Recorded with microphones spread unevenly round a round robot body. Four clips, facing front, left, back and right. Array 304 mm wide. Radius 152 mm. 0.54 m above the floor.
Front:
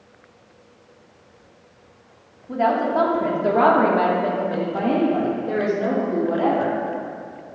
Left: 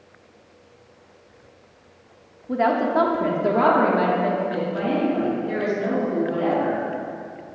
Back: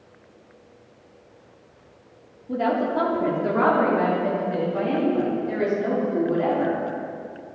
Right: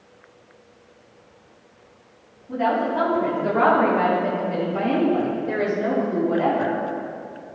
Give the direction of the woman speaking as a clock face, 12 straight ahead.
8 o'clock.